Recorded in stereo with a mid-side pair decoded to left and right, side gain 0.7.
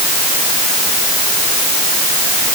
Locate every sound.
Only background noise.